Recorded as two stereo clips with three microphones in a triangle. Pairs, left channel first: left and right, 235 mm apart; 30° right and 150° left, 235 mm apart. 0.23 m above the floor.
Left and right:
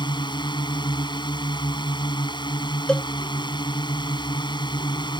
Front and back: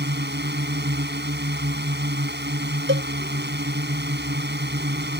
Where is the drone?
155° left.